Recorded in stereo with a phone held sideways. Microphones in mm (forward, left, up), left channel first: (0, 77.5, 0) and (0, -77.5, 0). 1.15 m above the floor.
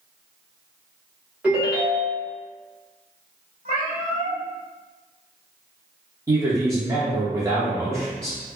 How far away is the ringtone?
About 1.4 m.